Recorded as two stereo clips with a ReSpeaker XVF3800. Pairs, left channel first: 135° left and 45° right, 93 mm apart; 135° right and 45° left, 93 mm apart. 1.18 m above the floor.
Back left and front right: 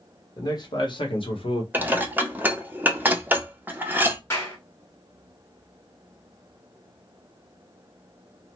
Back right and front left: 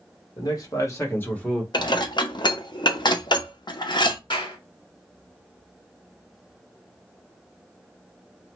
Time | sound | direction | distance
0.4 | a man speaking | straight behind | 1.4 m
1.7 | dishes clattering | 110° right | 0.6 m
4.3 | a clap | 165° right | 1.8 m